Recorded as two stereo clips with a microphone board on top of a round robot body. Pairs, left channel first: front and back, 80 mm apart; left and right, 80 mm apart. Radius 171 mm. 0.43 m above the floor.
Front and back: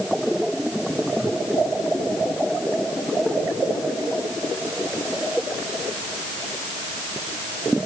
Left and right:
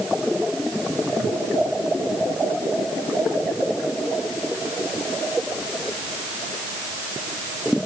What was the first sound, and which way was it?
Only background noise.